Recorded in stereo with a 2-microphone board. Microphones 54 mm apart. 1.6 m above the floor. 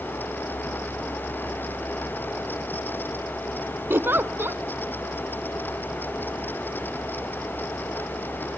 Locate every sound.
3.9 s a giggle: 40° right (ahead or behind), 0.7 m